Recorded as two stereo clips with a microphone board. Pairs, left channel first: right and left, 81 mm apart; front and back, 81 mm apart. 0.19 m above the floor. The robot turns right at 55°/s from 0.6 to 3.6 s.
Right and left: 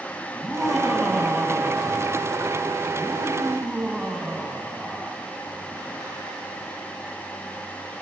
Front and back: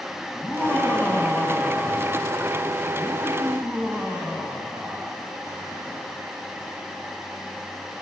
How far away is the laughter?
About 1.2 m.